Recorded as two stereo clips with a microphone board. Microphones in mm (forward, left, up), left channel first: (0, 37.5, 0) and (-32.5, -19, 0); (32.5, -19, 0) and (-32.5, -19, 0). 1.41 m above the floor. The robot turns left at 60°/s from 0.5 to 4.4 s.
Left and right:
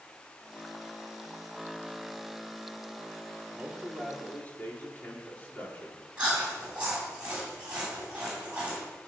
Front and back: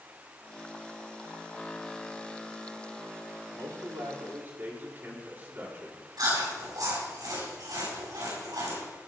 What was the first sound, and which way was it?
A man speaking, 175° left.